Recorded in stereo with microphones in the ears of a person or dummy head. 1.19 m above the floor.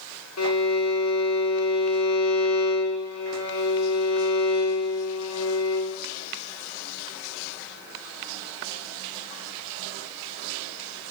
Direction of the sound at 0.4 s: 85° left.